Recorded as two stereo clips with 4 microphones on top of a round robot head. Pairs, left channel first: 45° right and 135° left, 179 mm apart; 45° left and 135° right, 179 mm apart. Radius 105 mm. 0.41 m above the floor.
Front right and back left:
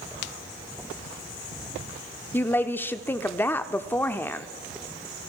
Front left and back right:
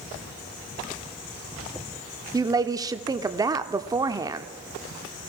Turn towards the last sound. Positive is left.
turn(degrees=-105)